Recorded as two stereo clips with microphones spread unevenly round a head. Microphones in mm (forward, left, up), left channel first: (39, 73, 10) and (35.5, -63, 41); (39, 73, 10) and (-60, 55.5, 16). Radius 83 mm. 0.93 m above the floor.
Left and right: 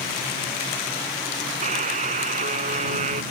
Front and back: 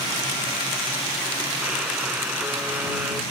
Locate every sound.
1.6 s a buzzer: 90° right